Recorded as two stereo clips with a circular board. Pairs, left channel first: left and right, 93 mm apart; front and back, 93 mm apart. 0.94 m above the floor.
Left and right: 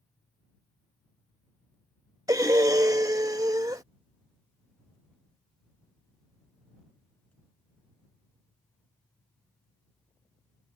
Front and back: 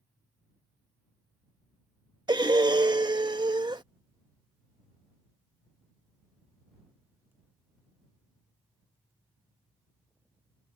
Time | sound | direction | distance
2.3 | breathing | 140° right | ?